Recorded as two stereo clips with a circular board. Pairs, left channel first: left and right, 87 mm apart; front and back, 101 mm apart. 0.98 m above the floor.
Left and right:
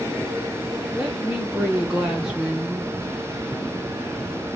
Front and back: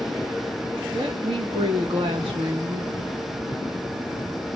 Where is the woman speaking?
170° right, 1.1 m.